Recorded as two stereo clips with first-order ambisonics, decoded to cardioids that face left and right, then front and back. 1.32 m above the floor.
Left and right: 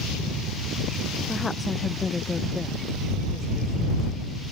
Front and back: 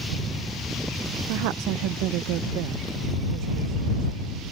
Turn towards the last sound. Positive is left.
turn(degrees=165)